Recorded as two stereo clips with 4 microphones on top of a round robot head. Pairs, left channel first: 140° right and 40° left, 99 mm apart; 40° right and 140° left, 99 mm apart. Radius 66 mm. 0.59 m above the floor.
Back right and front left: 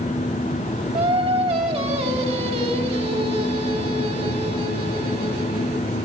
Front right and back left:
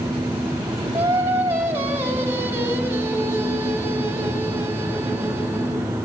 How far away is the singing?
About 3 m.